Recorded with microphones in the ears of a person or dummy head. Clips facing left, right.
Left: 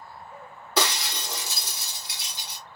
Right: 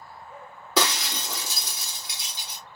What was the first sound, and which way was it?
Breaking glass, 70° right (ahead or behind).